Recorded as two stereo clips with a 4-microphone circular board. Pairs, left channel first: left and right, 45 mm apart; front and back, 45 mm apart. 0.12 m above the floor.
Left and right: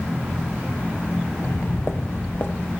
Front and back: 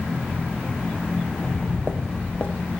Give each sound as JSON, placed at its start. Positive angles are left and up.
{"t": 1.4, "sound": "footsteps", "azimuth_deg": 65, "distance_m": 0.9}